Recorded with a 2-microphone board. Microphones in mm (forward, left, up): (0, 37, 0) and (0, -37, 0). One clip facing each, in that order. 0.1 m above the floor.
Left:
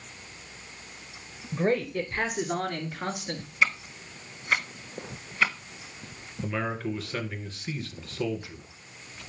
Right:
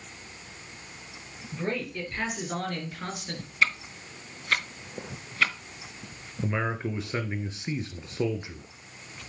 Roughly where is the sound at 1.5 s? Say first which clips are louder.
Left 6 dB; left.